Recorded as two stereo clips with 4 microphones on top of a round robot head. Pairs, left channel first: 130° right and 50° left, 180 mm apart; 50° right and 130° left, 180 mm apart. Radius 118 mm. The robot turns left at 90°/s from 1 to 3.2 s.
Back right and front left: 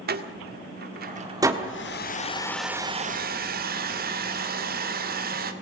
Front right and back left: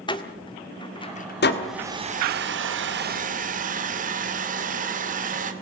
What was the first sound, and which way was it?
A door slam, 15° left.